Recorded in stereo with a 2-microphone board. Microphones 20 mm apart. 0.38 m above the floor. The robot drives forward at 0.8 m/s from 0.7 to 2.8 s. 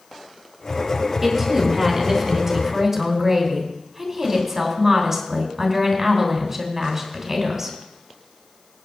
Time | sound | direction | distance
1.2 | a woman speaking | 10° right (ahead or behind) | 4.5 m